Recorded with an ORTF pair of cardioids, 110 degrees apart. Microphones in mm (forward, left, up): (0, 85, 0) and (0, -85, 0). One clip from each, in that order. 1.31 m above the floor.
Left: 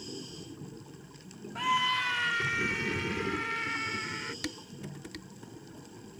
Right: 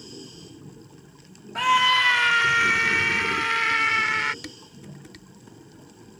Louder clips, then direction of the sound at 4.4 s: Left 1 dB; 20° left.